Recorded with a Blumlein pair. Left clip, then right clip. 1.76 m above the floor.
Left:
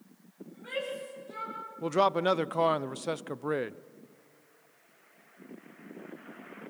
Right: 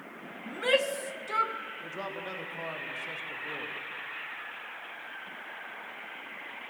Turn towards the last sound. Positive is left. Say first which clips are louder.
# left 12 dB
turn(degrees=35)